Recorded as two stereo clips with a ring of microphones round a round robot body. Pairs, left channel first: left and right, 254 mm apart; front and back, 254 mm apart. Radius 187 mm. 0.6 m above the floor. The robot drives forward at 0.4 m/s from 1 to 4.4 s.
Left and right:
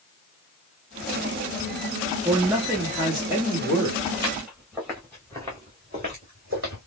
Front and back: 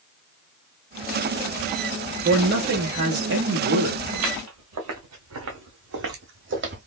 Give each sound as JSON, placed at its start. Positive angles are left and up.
{"t": 2.2, "sound": "a man speaking", "azimuth_deg": -165, "distance_m": 0.9}
{"t": 4.1, "sound": "footsteps", "azimuth_deg": -175, "distance_m": 2.5}